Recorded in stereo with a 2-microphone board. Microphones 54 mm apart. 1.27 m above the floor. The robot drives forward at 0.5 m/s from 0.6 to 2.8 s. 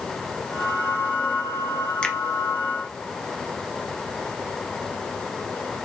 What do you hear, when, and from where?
2.0 s a finger snap: 20° left (ahead or behind), 0.7 m